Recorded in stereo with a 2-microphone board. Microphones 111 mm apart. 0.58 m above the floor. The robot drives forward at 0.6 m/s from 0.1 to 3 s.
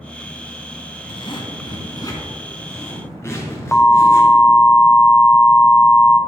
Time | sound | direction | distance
1.1 | a zipper | 50° left (ahead or behind) | 1.0 m
3.7 | an alarm | 15° left (ahead or behind) | 0.6 m